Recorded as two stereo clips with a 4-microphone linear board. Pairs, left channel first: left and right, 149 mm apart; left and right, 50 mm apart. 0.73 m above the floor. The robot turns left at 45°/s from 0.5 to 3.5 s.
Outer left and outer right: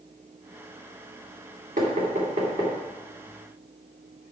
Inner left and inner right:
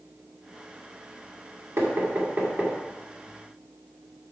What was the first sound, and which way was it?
Knocking, 65° right (ahead or behind).